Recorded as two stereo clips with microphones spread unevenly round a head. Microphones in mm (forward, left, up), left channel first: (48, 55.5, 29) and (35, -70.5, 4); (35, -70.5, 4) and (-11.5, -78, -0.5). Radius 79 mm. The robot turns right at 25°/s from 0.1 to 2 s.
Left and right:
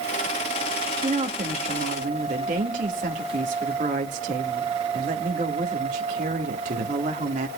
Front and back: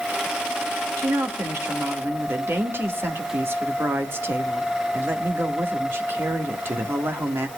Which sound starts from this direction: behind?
A woman speaking, at 1.0 s.